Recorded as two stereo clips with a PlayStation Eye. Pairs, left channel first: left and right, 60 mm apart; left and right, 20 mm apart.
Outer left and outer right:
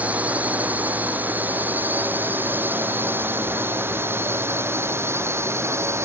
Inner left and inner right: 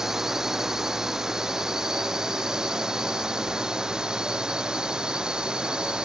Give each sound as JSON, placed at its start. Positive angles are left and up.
{"t": 0.0, "sound": "a drone", "side_deg": -25}